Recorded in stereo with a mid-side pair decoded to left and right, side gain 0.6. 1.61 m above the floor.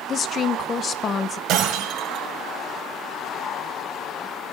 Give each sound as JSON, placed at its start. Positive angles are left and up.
{"t": 0.1, "sound": "a woman speaking", "azimuth_deg": 45, "distance_m": 1.4}
{"t": 1.5, "sound": "breaking glass", "azimuth_deg": -65, "distance_m": 5.5}